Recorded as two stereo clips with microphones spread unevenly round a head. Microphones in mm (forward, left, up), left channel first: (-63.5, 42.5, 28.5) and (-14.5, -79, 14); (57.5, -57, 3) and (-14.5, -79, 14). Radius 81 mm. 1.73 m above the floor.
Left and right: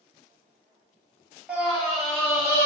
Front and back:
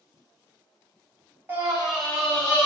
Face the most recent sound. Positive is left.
turn(degrees=70)